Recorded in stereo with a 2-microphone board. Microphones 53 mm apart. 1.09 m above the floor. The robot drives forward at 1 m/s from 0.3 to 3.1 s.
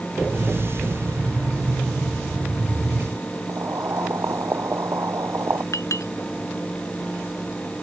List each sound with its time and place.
3.5 s boiling: 60° right (ahead or behind)
5.7 s a clink: 75° left (ahead or behind)